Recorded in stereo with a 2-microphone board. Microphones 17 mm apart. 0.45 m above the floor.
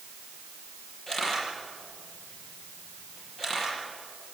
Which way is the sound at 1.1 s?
25° left (ahead or behind).